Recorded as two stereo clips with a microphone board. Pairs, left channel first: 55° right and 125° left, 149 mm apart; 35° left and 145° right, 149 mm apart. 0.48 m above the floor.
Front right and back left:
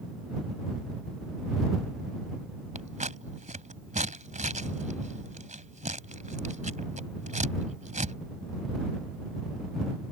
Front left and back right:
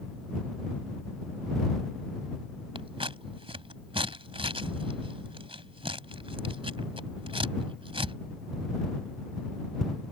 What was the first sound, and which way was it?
Scissors, 160° left.